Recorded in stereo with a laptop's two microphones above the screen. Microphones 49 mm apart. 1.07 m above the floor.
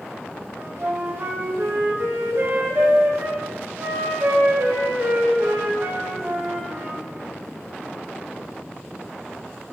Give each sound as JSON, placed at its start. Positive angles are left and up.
{"t": 0.6, "sound": "a flute", "side_deg": -65, "distance_m": 0.7}